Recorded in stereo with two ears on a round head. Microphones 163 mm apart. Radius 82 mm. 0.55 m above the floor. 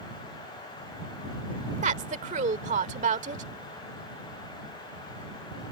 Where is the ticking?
No ticking in this recording.